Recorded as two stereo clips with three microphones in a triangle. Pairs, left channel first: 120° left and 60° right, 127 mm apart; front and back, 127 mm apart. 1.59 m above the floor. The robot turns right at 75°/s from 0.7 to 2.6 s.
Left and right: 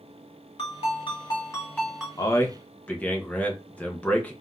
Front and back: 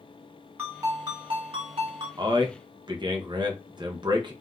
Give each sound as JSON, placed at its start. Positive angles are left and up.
{"t": 0.6, "sound": "a ringtone", "azimuth_deg": 110, "distance_m": 1.3}
{"t": 2.2, "sound": "a man speaking", "azimuth_deg": 160, "distance_m": 0.6}